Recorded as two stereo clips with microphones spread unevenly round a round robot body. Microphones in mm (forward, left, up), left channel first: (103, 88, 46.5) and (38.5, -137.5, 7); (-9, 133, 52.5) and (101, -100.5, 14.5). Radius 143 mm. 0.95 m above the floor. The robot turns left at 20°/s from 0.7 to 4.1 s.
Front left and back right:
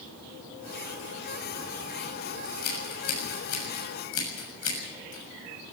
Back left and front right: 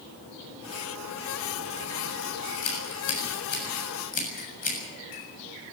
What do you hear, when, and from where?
2.5 s scissors: 90° left, 7.5 m; by 5.7 s 55° left, 7.5 m